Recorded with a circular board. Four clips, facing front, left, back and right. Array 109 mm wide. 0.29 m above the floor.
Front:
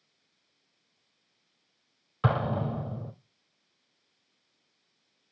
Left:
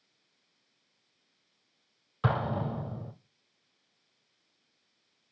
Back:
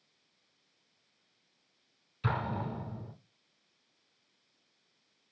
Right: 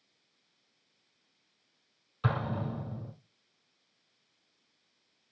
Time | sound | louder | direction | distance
2.2 | an explosion | left 3 dB, front 6 dB | 30° left | 1.9 m